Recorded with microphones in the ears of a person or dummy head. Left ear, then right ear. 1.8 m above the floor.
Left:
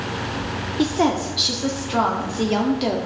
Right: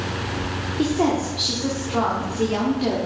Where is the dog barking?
I don't hear a dog barking.